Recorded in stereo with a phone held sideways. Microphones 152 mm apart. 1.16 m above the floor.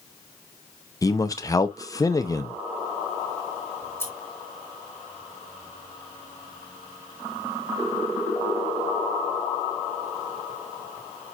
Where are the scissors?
15° left (ahead or behind), 2 m.